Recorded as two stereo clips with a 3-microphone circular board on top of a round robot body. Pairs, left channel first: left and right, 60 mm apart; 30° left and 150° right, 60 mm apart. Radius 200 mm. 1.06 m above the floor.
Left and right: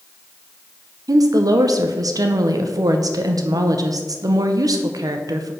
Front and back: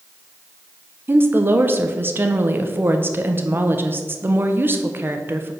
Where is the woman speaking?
95° right, 0.8 m.